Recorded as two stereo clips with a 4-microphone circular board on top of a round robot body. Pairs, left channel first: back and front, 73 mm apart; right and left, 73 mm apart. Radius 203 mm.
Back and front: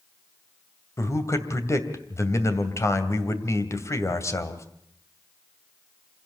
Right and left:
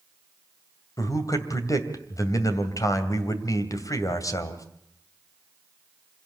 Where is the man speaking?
130° right, 2.5 m.